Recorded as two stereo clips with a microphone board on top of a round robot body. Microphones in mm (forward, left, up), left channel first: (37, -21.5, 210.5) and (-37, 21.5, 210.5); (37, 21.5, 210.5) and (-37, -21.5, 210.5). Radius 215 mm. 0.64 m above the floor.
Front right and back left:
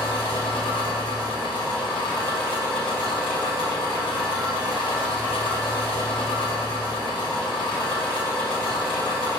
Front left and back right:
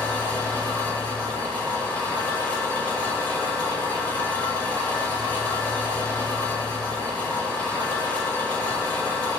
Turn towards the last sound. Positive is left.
turn(degrees=-40)